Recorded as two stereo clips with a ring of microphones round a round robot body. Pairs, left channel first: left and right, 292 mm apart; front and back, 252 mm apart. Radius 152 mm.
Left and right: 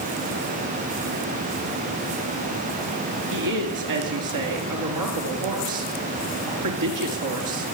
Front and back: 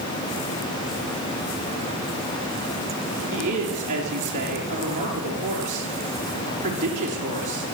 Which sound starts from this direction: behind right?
A woman speaking, at 3.3 s.